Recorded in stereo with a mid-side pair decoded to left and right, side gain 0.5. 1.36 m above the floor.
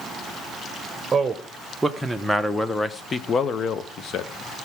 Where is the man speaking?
25° right, 1.3 m; by 4.3 s 65° left, 1.3 m.